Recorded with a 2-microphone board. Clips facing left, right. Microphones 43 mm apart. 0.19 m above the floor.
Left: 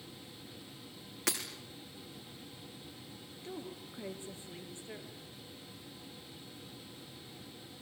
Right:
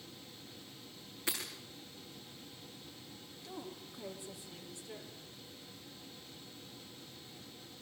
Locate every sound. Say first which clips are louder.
1.3 s breaking glass: left 3 dB; 85° left, 5 m
3.4 s a woman speaking: left 2 dB; 35° left (ahead or behind), 3.5 m